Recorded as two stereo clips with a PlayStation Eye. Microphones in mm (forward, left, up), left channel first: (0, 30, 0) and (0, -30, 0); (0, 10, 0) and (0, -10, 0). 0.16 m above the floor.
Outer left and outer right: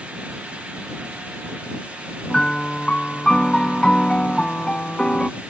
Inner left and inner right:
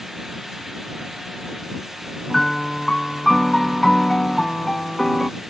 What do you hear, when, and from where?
2.3 s a piano: 15° left (ahead or behind)